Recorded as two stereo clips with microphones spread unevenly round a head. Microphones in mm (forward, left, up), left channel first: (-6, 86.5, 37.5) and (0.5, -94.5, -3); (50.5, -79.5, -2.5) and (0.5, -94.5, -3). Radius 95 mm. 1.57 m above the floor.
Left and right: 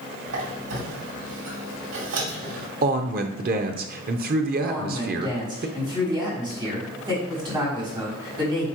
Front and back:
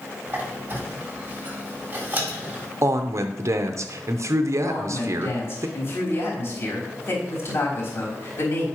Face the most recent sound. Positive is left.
turn(degrees=-20)